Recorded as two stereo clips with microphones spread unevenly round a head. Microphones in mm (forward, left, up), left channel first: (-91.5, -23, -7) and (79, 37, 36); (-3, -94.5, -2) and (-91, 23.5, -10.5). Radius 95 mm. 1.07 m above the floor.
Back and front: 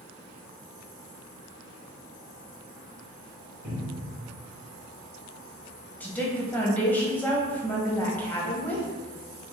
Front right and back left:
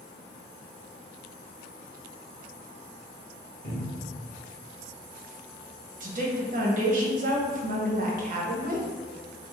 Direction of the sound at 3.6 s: 35° right.